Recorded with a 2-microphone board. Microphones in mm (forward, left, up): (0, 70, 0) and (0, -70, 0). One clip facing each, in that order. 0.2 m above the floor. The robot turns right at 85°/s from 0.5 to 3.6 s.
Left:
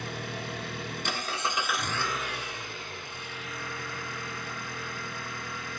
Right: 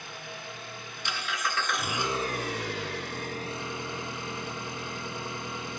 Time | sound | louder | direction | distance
0.0 | an engine running | left 6 dB | 70° left | 0.8 m